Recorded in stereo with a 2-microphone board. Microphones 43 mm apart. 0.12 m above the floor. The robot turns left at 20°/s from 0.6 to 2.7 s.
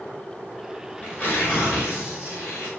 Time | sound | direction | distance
1.0 | tearing paper | 145° left | 7.5 m